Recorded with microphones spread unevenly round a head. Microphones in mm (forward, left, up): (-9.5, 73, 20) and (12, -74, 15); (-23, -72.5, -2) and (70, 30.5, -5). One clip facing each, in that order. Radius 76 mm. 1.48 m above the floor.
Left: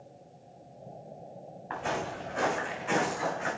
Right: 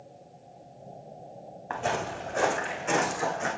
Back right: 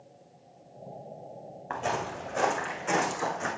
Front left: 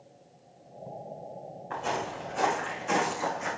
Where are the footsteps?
120° right, 6 m.